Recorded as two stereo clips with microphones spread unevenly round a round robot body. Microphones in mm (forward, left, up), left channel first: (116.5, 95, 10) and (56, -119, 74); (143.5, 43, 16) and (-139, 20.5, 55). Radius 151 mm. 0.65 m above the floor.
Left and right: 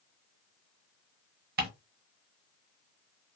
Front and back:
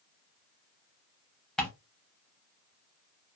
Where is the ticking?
90° right, 0.6 m.